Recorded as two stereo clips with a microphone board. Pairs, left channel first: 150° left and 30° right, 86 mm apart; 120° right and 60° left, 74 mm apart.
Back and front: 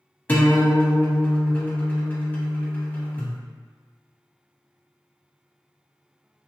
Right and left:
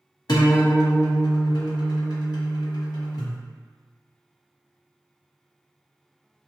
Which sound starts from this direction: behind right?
A guitar, at 0.3 s.